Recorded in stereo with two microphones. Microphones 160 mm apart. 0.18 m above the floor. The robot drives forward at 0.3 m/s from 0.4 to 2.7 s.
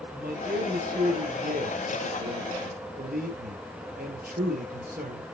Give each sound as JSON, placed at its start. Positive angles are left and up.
{"t": 0.1, "sound": "a man speaking", "side_deg": -65, "distance_m": 4.0}